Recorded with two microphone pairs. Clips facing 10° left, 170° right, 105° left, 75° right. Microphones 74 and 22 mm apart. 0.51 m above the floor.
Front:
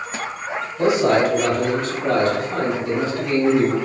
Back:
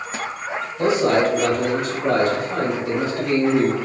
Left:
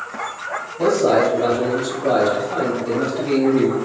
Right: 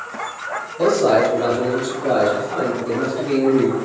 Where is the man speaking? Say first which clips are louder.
Front 1 dB, right 1 dB; 55° right, 1.3 m; by 3.8 s 135° left, 2 m.